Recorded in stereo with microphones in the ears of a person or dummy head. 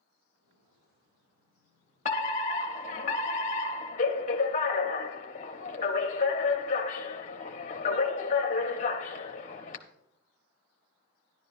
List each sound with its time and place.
0.3 s footsteps: 60° right (ahead or behind), 7 m; by 3.0 s 35° right (ahead or behind), 6 m
2.0 s a fire alarm: 35° left (ahead or behind), 0.8 m